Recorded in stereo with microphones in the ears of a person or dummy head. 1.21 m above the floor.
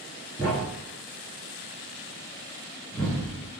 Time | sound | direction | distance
0.4 | a thud | 10° left (ahead or behind) | 2 m